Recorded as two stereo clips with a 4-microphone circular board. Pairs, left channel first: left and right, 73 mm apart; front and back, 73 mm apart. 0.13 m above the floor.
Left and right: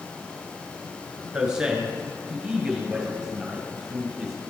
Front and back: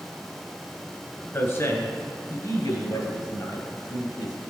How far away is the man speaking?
About 1.6 m.